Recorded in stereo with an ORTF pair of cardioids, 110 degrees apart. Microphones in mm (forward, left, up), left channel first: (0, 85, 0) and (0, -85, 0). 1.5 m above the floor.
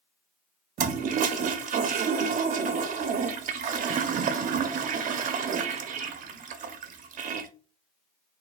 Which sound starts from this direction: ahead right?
A toilet flushing, at 0.8 s.